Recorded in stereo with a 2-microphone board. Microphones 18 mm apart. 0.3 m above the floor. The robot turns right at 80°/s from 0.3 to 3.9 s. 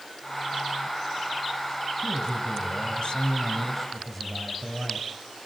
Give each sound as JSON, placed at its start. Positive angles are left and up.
{"t": 2.0, "sound": "a man speaking", "azimuth_deg": 35, "distance_m": 5.0}